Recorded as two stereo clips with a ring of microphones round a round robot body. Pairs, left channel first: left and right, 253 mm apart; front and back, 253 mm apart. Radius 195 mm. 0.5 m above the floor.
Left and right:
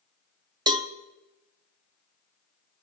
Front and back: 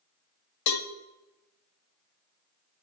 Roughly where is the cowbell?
Ahead.